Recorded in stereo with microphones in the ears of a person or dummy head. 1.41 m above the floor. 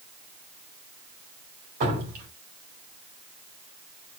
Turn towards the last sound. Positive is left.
turn(degrees=-55)  # may be behind; listen again after turning